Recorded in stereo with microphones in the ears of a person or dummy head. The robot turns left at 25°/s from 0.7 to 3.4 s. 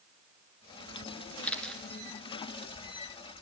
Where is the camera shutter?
10° left (ahead or behind), 2.5 m; by 1.8 s centre (ahead or behind), 2.5 m.